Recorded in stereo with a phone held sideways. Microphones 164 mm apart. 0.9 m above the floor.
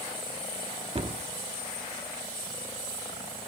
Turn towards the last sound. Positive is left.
turn(degrees=-35)  # may be behind; listen again after turning